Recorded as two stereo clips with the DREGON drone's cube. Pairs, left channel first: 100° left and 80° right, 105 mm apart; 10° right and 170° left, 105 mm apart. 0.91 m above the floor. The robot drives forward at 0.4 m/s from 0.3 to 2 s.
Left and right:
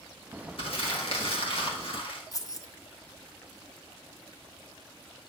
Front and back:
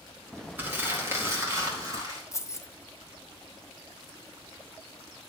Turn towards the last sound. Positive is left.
turn(degrees=45)